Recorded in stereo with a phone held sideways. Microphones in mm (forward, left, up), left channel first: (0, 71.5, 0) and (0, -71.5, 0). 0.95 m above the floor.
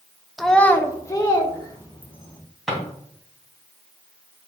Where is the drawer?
5° left (ahead or behind), 3 m.